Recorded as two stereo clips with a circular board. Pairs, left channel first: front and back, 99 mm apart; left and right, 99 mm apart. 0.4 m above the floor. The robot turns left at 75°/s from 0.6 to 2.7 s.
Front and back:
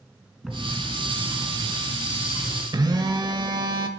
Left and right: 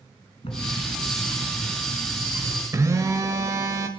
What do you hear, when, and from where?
0.4 s a bird: 95° left, 1.7 m; by 2.6 s 60° right, 1.7 m
2.7 s a phone buzzing: 145° right, 0.8 m